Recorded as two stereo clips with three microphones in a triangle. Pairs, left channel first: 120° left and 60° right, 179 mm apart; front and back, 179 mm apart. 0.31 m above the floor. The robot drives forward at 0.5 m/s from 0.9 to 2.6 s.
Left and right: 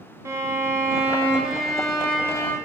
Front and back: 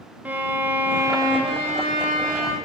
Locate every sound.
0.2 s a violin: 110° right, 0.7 m; by 2.5 s 165° right, 1.2 m